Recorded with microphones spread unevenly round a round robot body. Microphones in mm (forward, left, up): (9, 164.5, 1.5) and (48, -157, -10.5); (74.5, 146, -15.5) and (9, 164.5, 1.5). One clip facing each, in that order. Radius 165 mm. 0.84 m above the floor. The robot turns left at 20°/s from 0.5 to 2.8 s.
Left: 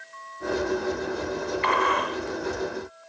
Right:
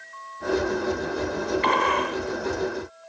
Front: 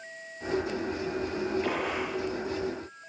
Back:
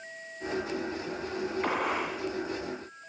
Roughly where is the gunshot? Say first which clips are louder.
Right 2 dB, back 1 dB; behind right.